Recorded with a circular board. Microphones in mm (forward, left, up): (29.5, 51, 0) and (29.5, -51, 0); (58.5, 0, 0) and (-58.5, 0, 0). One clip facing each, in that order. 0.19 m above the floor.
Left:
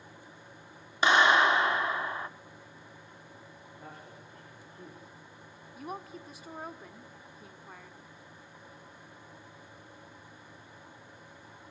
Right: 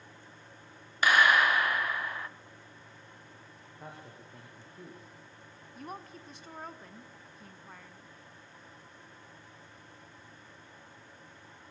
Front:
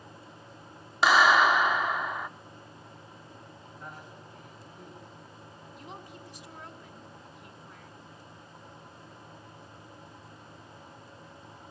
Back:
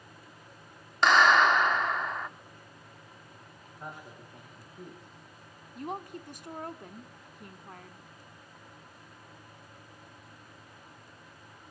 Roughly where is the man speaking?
Behind right.